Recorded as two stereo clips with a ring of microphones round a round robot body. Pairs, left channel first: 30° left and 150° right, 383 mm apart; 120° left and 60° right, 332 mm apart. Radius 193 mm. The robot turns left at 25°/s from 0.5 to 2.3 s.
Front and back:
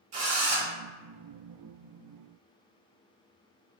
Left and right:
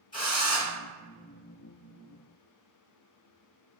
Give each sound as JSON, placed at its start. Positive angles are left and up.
{"t": 0.1, "sound": "a drill", "azimuth_deg": -165, "distance_m": 1.0}